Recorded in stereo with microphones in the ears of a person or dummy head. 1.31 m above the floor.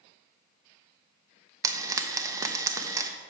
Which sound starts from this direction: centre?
Frying, at 1.6 s.